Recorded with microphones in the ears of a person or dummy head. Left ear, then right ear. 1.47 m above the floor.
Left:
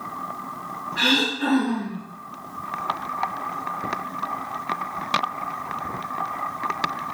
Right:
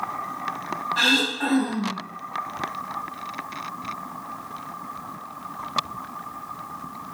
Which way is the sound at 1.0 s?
40° right (ahead or behind).